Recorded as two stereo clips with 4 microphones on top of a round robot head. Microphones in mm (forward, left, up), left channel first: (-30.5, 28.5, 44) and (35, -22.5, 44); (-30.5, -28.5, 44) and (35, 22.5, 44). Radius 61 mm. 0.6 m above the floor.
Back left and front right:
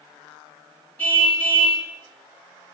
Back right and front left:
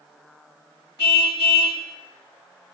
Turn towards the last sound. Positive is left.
turn(degrees=-145)